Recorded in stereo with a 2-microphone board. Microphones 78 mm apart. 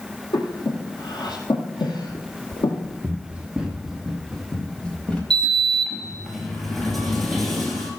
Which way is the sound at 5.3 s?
Centre (ahead or behind).